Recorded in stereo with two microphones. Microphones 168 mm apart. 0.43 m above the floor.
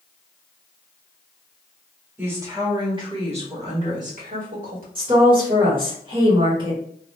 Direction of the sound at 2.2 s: 10° right (ahead or behind).